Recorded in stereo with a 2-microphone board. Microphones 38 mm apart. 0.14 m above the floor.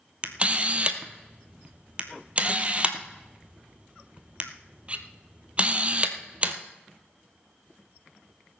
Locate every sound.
0.2 s a camera shutter: 30° right (ahead or behind), 1.0 m